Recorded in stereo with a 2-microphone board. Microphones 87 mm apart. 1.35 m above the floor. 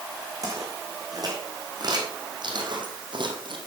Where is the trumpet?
I don't hear a trumpet.